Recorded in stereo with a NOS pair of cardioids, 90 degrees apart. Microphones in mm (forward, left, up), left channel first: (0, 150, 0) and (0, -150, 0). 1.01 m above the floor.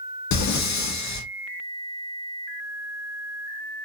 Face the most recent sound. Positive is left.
turn(degrees=65)